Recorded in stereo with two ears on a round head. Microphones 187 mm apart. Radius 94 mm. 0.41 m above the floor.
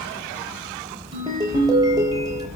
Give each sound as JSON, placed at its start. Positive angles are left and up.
{"t": 1.1, "sound": "a ringtone", "side_deg": -20, "distance_m": 6.0}